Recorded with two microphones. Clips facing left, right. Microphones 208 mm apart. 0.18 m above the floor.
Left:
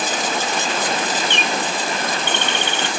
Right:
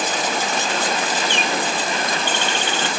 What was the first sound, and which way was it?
A bird, 65° left (ahead or behind).